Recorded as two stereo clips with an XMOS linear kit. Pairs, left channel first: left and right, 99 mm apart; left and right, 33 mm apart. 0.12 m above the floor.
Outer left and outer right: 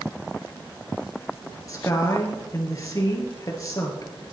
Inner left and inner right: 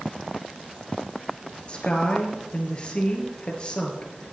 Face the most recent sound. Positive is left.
turn(degrees=35)  # may be behind; listen again after turning